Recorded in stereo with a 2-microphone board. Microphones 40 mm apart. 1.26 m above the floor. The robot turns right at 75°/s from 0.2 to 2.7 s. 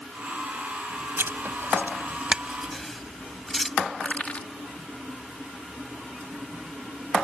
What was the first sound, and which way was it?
Writing, 70° right (ahead or behind).